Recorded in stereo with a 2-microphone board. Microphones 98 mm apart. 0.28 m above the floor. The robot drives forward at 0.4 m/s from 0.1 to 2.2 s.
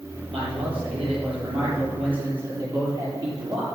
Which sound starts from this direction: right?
A man speaking, at 0.3 s.